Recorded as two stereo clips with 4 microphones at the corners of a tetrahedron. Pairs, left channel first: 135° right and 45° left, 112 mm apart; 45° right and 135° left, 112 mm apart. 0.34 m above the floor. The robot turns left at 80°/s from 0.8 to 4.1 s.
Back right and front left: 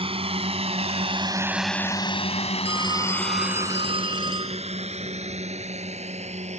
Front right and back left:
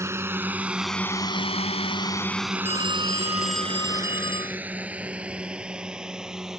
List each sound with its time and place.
0.0 s a drone: 70° left; by 6.6 s 50° left
2.6 s a phone ringing: 115° left; by 4.6 s straight ahead